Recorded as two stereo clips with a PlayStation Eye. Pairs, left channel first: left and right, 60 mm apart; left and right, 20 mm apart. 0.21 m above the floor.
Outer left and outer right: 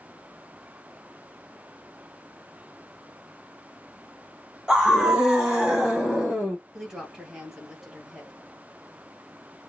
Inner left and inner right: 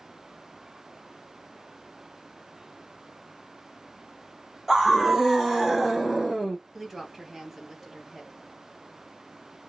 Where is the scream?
10° right (ahead or behind), 1.3 m; by 6.6 s 20° right (ahead or behind), 1.1 m.